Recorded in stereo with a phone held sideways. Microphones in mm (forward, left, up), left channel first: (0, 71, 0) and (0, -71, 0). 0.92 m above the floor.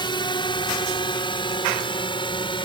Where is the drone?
30° left (ahead or behind); by 2.6 s 35° left (ahead or behind).